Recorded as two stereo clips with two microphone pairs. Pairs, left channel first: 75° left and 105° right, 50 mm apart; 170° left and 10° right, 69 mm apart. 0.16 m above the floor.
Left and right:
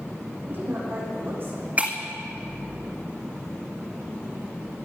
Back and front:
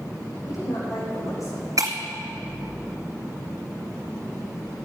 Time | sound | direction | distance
0.5 | a woman speaking | 150° right | 7.5 m
1.8 | breaking glass | 45° right | 1.9 m